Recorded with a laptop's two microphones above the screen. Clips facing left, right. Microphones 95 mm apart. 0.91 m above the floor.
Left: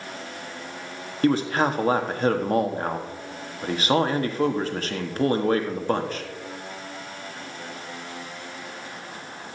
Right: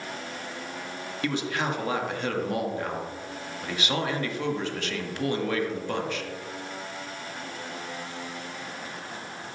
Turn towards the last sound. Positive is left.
turn(degrees=40)  # may be behind; listen again after turning